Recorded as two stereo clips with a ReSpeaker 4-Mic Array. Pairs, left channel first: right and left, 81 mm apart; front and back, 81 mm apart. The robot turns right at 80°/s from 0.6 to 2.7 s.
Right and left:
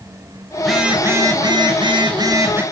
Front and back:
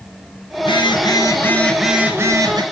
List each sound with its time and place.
0.6 s a phone buzzing: 5° right, 5 m; by 2.6 s 155° left, 5 m